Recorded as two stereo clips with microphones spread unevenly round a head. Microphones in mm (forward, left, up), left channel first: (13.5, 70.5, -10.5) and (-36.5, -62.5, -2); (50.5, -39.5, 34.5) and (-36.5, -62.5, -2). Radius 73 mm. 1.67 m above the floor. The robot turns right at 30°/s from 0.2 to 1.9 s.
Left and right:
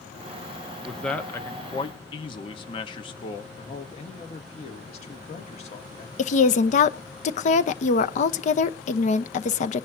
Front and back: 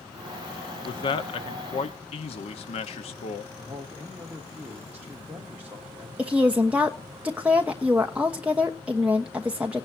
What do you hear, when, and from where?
0.8 s a man speaking: 20° right, 1.2 m; by 3.5 s 10° left, 1.2 m
3.6 s a man speaking: 115° left, 2.5 m
6.2 s a woman speaking: 105° left, 1.0 m